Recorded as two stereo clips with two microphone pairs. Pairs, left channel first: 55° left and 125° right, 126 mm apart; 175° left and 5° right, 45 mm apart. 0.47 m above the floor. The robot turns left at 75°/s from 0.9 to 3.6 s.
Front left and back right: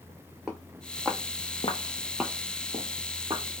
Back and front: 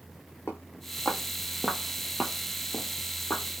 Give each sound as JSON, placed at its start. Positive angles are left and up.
{"t": 0.5, "sound": "footsteps", "azimuth_deg": 155, "distance_m": 1.1}